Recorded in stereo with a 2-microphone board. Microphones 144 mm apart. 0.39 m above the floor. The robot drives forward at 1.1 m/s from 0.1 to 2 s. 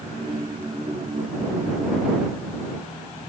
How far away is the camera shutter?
No camera shutter in this recording.